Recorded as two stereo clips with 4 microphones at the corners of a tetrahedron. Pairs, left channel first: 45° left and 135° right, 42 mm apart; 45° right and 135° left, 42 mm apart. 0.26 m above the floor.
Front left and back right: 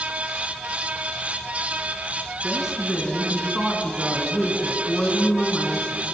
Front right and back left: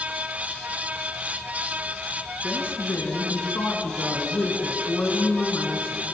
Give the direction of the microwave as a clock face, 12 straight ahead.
No microwave in this recording.